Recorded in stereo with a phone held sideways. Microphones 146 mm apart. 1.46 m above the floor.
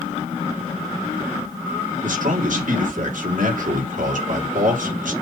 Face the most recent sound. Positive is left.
turn(degrees=-65)  # may be behind; listen again after turning